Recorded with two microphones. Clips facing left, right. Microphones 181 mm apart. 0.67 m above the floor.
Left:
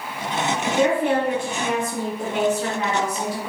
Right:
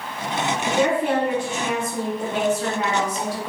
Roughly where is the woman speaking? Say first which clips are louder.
Left 1 dB; left.